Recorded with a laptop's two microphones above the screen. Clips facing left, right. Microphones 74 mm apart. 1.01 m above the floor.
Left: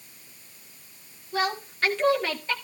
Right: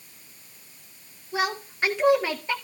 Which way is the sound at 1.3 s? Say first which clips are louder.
Even; 15° right (ahead or behind).